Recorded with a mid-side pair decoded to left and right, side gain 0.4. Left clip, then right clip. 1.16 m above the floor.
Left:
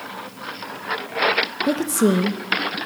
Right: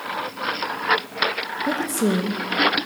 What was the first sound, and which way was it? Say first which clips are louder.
A woman speaking: left 3 dB; 35° left.